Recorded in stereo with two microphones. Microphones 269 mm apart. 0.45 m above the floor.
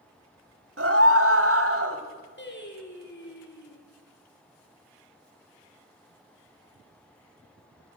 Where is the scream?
55° right (ahead or behind), 2.5 m.